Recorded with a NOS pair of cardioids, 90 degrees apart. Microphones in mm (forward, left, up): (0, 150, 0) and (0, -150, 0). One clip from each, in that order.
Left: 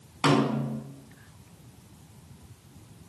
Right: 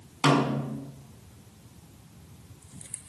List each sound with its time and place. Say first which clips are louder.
0.2 s a snare drum: even; 5° right, 6.5 m